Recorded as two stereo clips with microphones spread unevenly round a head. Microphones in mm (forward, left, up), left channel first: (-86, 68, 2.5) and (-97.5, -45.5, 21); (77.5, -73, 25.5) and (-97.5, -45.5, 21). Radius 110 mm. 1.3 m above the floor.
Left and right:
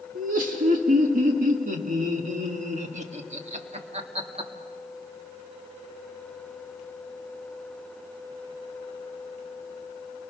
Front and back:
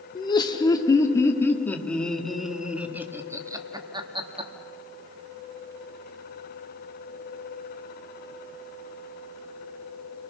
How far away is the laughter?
About 3 m.